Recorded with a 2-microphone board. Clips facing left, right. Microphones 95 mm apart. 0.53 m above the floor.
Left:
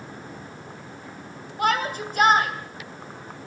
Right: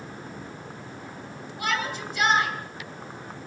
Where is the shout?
50° left (ahead or behind), 2.5 m.